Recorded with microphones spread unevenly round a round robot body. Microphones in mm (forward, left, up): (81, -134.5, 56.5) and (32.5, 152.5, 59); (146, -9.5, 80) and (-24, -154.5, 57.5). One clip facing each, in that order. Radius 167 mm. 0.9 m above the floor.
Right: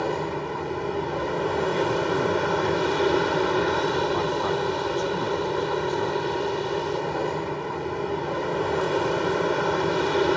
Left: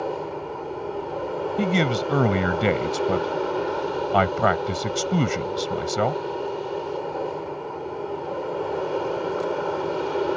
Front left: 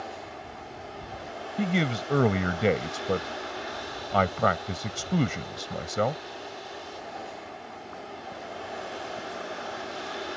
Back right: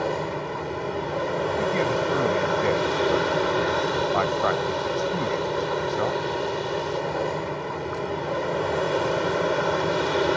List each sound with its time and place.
0.0 s an aircraft: 140° right
1.6 s a man speaking: 105° left